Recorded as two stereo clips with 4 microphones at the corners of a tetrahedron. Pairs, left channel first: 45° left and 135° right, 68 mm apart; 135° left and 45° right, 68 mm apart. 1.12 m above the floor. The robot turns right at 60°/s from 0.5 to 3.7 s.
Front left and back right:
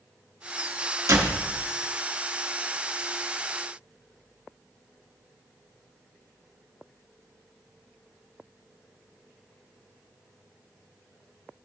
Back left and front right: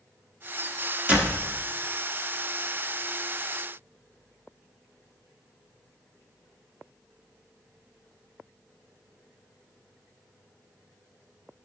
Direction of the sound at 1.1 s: 110° right.